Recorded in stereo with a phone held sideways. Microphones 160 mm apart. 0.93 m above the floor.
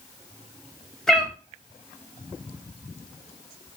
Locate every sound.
1.1 s a cat meowing: centre (ahead or behind), 0.6 m